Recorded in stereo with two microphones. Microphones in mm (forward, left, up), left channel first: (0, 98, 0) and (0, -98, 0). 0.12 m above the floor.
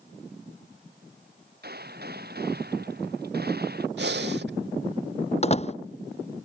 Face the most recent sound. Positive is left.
turn(degrees=35)  # may be behind; listen again after turning